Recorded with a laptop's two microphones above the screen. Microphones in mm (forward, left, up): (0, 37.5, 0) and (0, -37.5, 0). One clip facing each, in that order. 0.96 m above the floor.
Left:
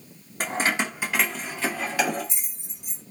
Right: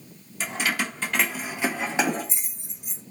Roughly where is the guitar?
I don't hear a guitar.